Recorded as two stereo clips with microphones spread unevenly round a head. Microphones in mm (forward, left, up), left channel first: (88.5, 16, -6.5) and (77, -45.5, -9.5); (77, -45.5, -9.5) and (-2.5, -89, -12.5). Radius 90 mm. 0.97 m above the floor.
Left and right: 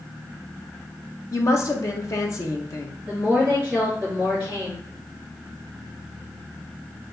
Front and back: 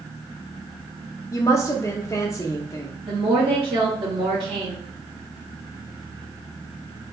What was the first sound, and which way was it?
A woman speaking, 90° left.